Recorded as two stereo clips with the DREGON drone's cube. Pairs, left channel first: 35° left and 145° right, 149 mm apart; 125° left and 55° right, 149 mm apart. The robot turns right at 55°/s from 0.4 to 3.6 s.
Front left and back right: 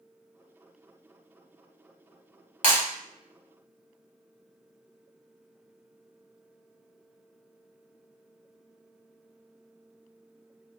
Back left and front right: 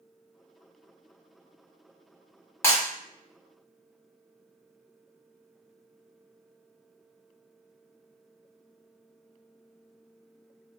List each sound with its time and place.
2.6 s breaking glass: 55° left, 1.3 m; by 2.8 s 65° left, 1.3 m